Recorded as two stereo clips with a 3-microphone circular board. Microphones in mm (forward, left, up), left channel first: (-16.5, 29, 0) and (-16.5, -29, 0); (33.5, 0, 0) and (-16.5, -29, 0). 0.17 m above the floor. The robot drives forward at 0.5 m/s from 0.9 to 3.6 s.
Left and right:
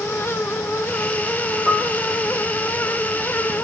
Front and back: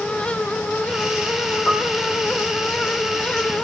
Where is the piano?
50° right, 3 m.